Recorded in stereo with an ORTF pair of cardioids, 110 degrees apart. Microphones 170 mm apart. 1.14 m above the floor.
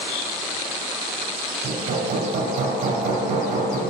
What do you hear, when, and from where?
1.6 s hammering: 55° right, 3 m